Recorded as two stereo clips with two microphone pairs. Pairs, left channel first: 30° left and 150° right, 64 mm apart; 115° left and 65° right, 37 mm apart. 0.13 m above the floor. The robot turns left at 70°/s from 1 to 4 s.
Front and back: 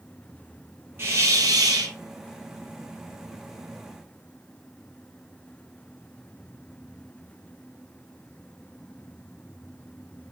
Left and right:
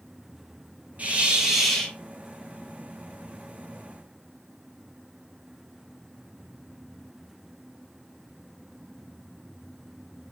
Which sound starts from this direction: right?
A hiss, at 1.0 s.